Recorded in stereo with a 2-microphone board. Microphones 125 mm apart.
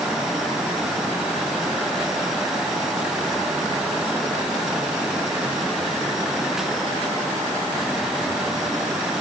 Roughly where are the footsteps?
No footsteps in this recording.